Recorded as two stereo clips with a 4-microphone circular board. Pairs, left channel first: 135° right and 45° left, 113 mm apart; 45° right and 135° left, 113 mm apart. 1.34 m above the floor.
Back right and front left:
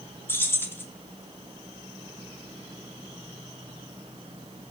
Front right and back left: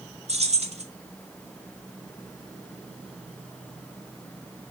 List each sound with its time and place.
0.3 s keys jangling: 155° left, 2.5 m